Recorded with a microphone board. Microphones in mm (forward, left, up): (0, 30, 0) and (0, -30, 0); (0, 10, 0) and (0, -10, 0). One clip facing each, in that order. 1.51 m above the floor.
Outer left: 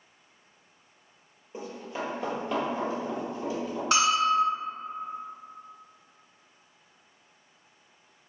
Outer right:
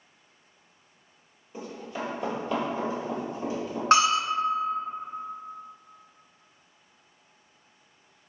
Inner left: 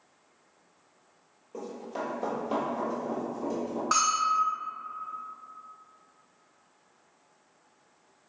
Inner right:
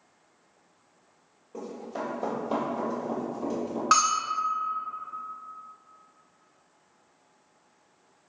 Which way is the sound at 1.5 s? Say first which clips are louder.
Even, inner right 1 dB; 25° left (ahead or behind).